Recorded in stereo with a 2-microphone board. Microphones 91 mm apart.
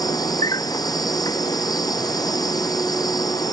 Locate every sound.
0.0 s an insect: 45° left (ahead or behind)